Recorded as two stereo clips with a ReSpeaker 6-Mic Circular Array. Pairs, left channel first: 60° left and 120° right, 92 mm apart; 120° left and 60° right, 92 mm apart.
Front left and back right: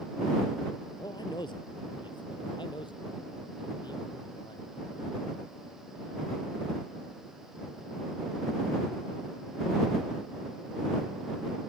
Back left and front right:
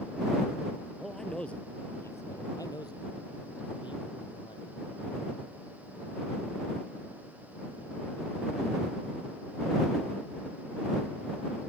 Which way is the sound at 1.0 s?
30° left.